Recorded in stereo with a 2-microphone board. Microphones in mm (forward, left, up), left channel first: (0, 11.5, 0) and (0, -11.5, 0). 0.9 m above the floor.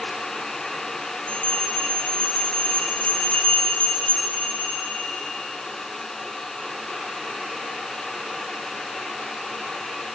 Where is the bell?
75° left (ahead or behind), 2.5 m.